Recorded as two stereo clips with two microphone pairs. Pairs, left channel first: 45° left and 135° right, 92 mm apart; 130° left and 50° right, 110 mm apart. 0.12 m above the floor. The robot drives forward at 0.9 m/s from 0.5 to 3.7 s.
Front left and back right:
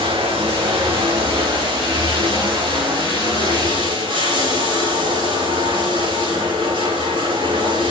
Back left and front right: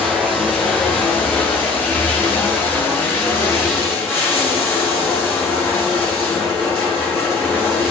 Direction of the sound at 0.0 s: 145° right.